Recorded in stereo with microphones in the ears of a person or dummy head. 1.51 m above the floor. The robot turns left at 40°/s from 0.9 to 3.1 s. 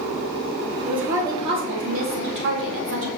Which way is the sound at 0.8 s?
5° right.